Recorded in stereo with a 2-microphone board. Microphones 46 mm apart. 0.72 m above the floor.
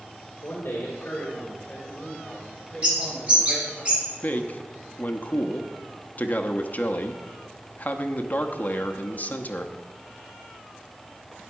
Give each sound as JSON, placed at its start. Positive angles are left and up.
{"t": 0.4, "sound": "a man speaking", "side_deg": 60, "distance_m": 2.5}
{"t": 2.8, "sound": "a bird", "side_deg": -25, "distance_m": 5.0}
{"t": 4.2, "sound": "a man speaking", "side_deg": 40, "distance_m": 0.7}